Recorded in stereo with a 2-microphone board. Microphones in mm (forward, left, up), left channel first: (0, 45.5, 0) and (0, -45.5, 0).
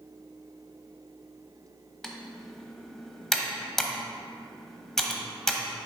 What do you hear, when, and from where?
2.0 s typing on a keyboard: 5° left (ahead or behind), 0.9 m